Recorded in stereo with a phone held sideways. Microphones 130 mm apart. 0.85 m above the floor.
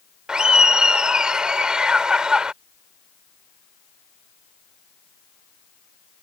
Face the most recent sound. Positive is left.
turn(degrees=-5)  # may be behind; listen again after turning